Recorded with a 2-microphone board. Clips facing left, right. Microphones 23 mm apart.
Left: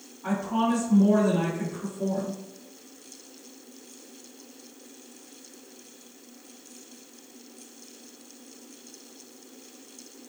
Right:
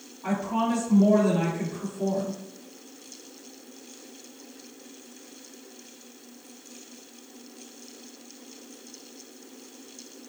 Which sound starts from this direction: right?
A woman speaking, at 0.2 s.